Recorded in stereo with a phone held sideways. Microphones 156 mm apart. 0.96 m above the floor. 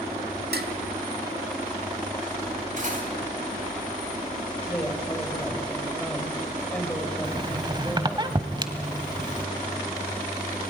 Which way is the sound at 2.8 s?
55° right (ahead or behind).